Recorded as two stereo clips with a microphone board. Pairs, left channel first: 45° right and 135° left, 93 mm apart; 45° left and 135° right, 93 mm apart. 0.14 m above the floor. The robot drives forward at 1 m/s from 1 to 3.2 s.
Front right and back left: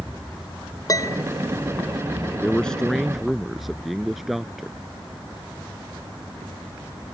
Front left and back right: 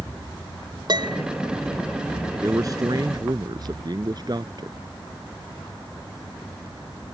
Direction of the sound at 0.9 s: 100° right.